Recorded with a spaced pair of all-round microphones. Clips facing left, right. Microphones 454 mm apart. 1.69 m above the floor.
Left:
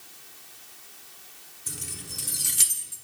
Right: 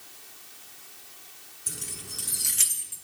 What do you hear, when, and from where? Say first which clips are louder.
1.7 s keys jangling: left 1 dB; 15° left (ahead or behind), 0.7 m; by 3.0 s 55° left (ahead or behind), 1.0 m